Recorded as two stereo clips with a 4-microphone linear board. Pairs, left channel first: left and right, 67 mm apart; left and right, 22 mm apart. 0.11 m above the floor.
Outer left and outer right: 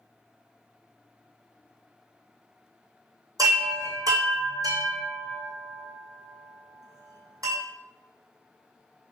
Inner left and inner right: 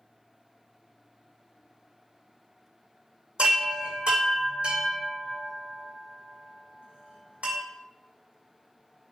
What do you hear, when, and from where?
3.4 s a chime: 75° right (ahead or behind), 2 m